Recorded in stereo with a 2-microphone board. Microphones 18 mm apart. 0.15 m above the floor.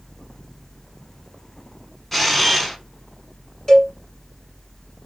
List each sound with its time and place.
2.1 s a camera shutter: 20° left (ahead or behind), 1.0 m
3.7 s a cowbell: 35° left (ahead or behind), 1.4 m